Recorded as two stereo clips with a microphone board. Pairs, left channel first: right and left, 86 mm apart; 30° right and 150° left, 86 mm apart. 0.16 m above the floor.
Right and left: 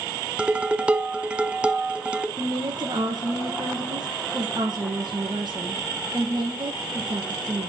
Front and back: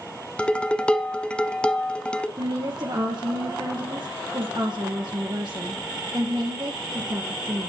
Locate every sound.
0.4 s dishes clattering: 30° left, 0.8 m
2.4 s a woman speaking: 120° left, 3 m